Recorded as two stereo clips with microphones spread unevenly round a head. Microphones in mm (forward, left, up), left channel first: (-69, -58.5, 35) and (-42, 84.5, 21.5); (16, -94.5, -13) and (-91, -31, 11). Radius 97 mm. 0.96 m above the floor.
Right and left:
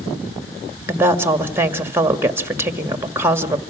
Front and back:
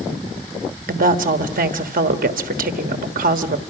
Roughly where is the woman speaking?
Behind left.